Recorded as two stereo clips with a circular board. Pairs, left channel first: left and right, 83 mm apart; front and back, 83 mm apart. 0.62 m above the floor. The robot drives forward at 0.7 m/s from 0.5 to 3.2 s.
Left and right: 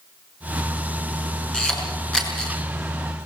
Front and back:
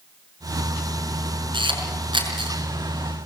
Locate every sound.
1.5 s a camera shutter: 170° left, 5 m